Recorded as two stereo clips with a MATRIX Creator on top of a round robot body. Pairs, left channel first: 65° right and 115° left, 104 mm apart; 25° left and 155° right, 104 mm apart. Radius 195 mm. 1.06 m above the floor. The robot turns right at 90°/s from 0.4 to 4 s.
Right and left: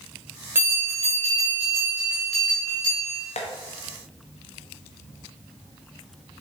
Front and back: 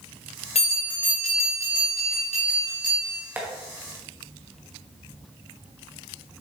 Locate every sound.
0.6 s a bell: 45° left, 0.9 m; by 3.2 s 80° right, 0.9 m
3.4 s tapping: 85° right, 1.0 m; by 3.5 s 75° right, 1.0 m